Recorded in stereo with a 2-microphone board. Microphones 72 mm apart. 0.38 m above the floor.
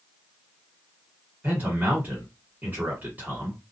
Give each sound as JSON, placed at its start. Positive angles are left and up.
{"t": 1.4, "sound": "a man speaking", "side_deg": -25, "distance_m": 1.5}